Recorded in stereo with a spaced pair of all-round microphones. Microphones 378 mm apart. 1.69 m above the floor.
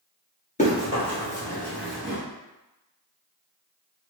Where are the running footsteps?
20° left (ahead or behind), 1.8 m; by 2.2 s 5° right (ahead or behind), 1.6 m.